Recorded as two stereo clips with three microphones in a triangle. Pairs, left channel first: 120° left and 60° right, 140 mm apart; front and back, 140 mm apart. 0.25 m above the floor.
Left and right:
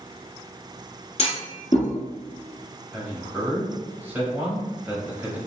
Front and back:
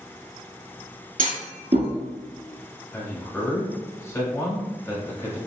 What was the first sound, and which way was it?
A clunk, 160° left.